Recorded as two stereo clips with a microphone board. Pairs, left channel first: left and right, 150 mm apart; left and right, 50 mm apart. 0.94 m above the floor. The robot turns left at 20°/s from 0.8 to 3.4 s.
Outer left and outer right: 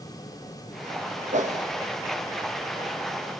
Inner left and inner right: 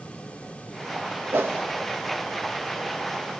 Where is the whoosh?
55° right (ahead or behind), 1.2 m; by 1.6 s 50° right (ahead or behind), 1.2 m.